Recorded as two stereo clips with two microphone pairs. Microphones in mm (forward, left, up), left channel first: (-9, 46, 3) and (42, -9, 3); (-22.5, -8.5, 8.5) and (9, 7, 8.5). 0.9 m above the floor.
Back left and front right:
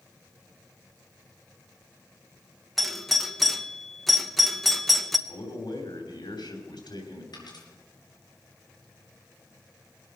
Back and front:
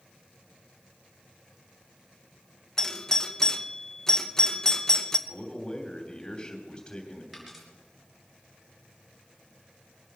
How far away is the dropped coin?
About 4.5 m.